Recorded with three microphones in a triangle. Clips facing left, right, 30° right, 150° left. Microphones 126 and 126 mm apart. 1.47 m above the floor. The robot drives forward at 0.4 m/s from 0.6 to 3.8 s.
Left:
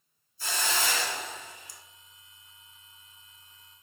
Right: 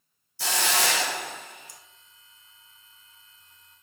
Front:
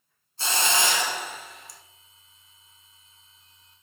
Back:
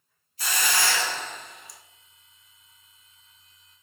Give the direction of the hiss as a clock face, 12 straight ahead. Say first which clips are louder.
Right 5 dB, front 2 dB; 3 o'clock.